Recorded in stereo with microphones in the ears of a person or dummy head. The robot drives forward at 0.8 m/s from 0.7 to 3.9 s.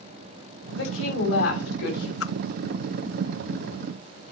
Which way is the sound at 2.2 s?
65° left (ahead or behind).